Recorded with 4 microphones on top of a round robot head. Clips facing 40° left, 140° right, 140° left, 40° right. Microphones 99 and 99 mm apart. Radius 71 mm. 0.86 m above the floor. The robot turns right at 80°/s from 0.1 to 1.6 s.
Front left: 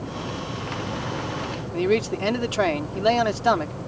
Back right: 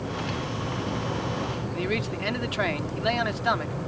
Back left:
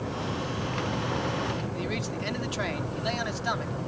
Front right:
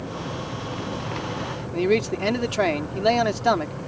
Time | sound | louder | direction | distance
1.7 | a man speaking | front left 10 dB, front right 11 dB | 15° right | ?